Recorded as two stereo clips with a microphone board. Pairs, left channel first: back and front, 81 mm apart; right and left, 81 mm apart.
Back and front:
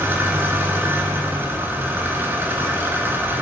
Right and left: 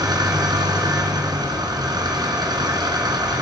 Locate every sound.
0.0 s an engine running: 60° left, 1.8 m